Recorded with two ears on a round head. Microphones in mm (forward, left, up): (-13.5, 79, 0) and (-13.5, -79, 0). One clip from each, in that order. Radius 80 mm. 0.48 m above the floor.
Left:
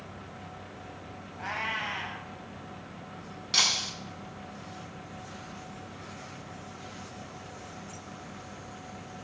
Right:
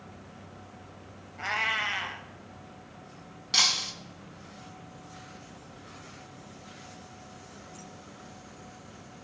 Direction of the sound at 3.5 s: 10° right (ahead or behind).